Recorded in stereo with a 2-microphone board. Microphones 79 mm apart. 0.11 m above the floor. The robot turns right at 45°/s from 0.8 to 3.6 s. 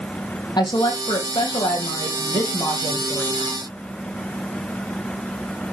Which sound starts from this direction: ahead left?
A woman speaking, at 0.6 s.